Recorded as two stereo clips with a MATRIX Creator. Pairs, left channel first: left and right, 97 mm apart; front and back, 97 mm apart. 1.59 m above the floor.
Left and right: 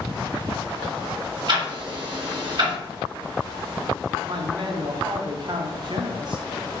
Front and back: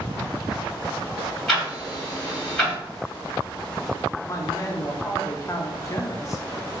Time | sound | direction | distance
1.5 | ticking | 85° right | 2 m
4.2 | a man speaking | 55° right | 0.8 m